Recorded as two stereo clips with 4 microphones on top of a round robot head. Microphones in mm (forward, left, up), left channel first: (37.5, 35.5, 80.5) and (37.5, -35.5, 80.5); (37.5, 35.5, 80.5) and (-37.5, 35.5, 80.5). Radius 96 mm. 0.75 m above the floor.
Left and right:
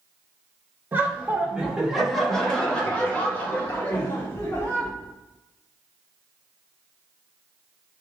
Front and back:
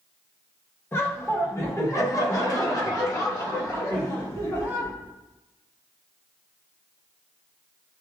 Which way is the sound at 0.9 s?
40° right.